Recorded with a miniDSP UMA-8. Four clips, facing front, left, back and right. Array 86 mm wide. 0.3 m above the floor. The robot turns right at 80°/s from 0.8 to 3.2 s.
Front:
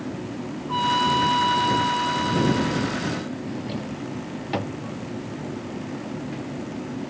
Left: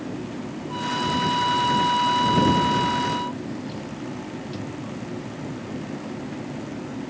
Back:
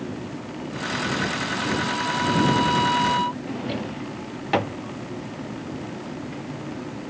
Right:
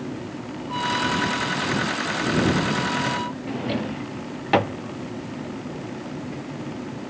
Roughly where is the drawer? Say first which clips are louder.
Right 5 dB, back 1 dB; right.